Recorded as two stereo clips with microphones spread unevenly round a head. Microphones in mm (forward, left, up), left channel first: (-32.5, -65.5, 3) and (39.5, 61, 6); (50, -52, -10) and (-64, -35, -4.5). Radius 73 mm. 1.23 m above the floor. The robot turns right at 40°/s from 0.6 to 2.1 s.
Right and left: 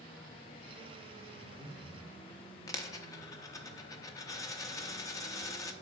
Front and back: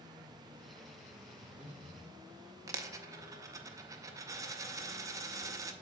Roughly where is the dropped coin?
Behind.